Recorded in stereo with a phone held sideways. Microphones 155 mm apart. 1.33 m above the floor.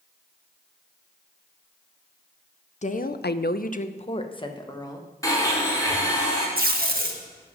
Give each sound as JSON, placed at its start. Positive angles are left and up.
{"t": 2.8, "sound": "a woman speaking", "side_deg": 45, "distance_m": 0.7}
{"t": 5.2, "sound": "a blender", "side_deg": 20, "distance_m": 5.0}
{"t": 6.6, "sound": "tape being pulled", "side_deg": -65, "distance_m": 1.6}